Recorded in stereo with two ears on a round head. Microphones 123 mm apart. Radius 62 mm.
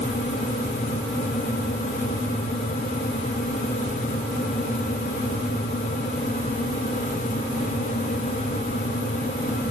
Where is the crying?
No crying in this recording.